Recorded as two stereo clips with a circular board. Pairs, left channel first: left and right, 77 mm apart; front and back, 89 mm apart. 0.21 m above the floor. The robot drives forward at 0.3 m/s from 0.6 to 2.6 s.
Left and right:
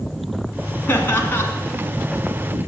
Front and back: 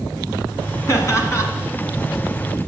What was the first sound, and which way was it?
Laughter, 40° left.